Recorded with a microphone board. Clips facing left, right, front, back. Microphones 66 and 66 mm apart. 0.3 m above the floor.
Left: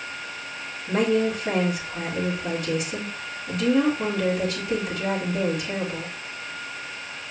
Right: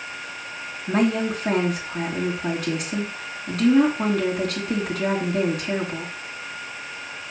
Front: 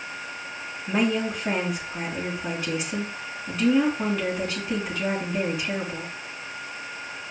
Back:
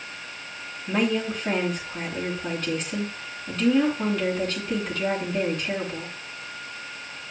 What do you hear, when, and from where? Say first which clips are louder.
0.9 s a woman speaking: even, even; 85° right, 3 m